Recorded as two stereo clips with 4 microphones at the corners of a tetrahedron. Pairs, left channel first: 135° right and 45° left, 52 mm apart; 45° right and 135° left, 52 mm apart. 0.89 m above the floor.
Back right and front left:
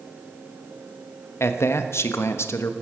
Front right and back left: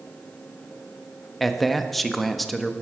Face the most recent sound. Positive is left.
turn(degrees=-130)